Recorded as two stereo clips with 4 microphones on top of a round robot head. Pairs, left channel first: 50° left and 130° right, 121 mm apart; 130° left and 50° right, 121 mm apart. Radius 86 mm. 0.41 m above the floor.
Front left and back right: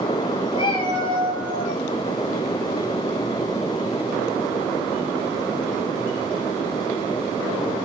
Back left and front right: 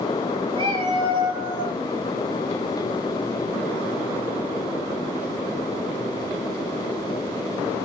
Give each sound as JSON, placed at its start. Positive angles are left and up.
{"t": 0.5, "sound": "a cat meowing", "azimuth_deg": 0, "distance_m": 5.0}